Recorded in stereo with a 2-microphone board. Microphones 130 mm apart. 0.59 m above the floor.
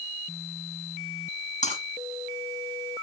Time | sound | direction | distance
1.6 | breaking glass | 70° left (ahead or behind) | 9 m